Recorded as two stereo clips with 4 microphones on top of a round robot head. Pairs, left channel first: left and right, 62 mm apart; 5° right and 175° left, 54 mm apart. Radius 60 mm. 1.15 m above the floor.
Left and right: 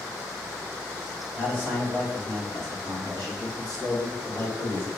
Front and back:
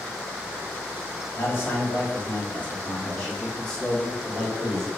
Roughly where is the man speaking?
Ahead left.